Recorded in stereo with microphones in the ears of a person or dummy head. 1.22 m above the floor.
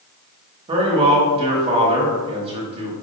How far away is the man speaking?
About 1.3 m.